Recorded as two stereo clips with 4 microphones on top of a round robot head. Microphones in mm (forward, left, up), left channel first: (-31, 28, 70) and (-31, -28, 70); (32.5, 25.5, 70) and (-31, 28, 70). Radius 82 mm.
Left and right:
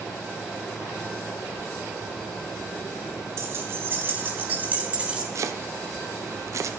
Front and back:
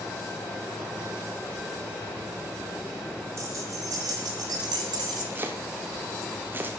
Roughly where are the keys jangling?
Behind right.